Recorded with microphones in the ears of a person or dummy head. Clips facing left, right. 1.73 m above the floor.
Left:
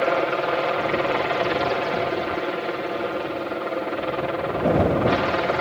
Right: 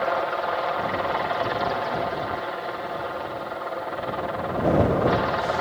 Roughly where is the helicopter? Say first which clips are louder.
Left 4 dB; left.